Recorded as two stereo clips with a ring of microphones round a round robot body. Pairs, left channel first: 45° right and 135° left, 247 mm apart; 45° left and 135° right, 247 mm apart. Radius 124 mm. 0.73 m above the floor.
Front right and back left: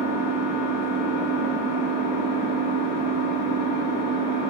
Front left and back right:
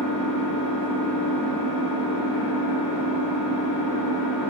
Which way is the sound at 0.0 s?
20° left.